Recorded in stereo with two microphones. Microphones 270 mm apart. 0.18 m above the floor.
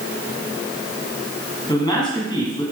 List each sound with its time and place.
1.7 s a man speaking: 15° left (ahead or behind), 1.8 m